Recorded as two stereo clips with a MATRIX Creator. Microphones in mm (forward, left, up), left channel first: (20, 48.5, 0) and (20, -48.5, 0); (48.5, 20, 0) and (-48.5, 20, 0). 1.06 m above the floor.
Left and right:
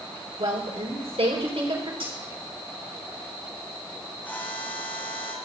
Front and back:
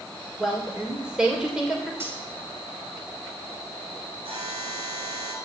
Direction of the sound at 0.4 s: 95° right.